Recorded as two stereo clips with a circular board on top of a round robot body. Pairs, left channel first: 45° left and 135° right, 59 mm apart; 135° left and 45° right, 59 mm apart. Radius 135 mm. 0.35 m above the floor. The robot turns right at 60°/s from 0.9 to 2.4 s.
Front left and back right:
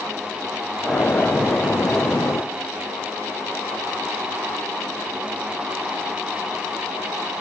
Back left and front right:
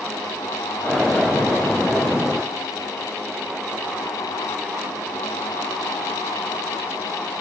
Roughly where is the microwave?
No microwave in this recording.